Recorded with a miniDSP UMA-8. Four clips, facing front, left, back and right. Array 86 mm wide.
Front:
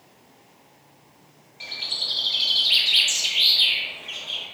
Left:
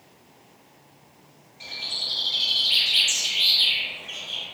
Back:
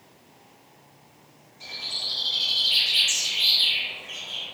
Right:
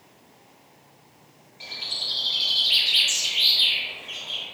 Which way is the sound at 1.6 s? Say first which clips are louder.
Even, front 2 dB; 10° right.